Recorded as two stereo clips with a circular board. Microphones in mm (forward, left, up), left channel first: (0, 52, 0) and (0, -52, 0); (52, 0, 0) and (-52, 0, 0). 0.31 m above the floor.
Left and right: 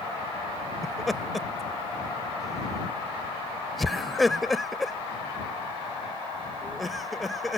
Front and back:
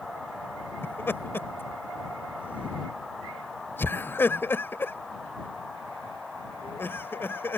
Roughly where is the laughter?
Ahead.